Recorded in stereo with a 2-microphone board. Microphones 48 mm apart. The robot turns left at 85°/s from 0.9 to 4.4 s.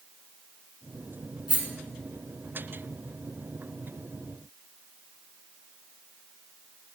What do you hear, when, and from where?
1.5 s a rattle: 20° right (ahead or behind), 1.6 m; by 1.6 s 25° right (ahead or behind), 1.6 m